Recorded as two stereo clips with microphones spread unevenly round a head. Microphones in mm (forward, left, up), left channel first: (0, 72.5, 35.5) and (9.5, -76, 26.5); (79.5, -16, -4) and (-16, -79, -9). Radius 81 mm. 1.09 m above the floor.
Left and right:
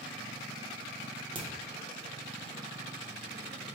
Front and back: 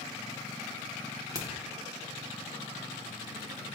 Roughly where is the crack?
Behind right.